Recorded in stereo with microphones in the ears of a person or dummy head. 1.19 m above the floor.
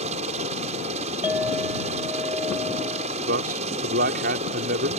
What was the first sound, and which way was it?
A helicopter, 35° right (ahead or behind).